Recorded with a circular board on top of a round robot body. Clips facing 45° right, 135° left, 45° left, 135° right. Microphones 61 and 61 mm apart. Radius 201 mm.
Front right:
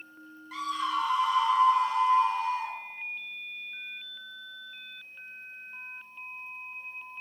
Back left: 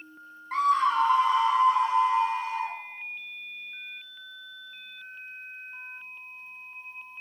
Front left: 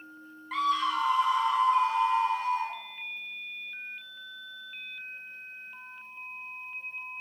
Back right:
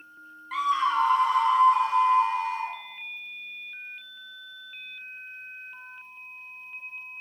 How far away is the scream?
About 0.7 m.